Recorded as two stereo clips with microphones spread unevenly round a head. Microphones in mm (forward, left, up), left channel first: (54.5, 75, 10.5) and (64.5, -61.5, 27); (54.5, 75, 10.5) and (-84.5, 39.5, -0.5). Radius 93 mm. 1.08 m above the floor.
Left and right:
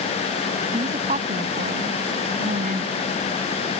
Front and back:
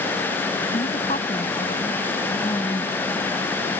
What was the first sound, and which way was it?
A woman speaking, 45° right.